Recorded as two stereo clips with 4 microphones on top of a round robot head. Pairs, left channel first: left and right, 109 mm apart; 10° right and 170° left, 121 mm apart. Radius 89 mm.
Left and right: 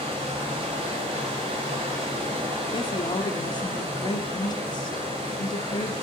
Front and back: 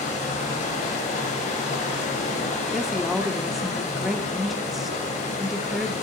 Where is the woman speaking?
85° left, 0.8 m.